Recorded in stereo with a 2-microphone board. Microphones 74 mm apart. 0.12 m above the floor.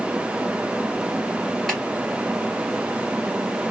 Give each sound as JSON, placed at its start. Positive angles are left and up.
{"t": 1.7, "sound": "a snare drum", "side_deg": 5, "distance_m": 2.5}